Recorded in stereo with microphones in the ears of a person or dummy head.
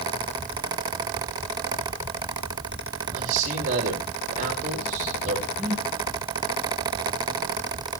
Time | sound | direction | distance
3.1 | a man speaking | 45° right (ahead or behind) | 4.5 m
5.6 | a whoosh | 5° right (ahead or behind) | 9.5 m